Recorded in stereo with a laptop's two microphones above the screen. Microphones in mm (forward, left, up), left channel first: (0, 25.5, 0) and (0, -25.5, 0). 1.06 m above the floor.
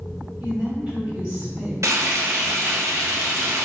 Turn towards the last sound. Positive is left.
turn(degrees=-70)  # may be behind; listen again after turning